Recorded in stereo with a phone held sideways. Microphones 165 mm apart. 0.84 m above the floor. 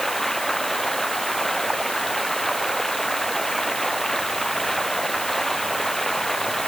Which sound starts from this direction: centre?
Running water, at 0.0 s.